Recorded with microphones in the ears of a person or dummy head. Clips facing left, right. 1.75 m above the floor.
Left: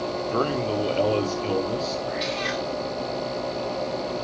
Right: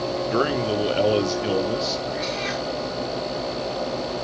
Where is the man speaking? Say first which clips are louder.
Right 2 dB; 15° right (ahead or behind), 0.8 m.